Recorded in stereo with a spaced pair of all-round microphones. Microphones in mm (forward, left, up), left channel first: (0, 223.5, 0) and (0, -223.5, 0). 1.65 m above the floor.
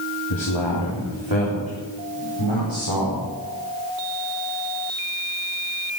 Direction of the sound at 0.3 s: 85° left.